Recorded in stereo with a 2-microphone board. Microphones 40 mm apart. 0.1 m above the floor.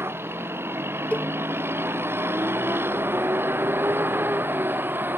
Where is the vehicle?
85° right; by 5.2 s 60° right (ahead or behind).